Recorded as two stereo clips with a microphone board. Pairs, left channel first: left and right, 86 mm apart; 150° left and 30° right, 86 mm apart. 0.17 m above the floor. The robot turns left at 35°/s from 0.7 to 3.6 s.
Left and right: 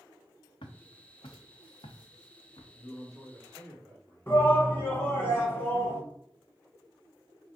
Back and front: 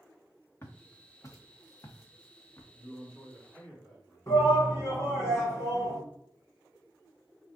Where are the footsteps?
95° left, 1.1 m; by 2.6 s 90° left, 1.3 m.